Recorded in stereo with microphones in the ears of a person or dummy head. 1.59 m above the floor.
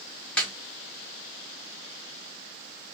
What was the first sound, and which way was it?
A snare drum, 10° left (ahead or behind).